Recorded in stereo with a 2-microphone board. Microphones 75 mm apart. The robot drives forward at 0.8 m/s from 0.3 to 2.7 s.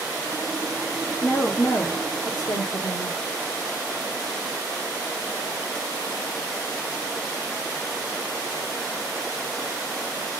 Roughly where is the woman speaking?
Left.